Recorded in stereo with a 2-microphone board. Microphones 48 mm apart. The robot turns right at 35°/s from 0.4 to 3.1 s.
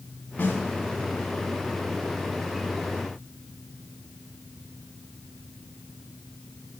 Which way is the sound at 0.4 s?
30° left (ahead or behind).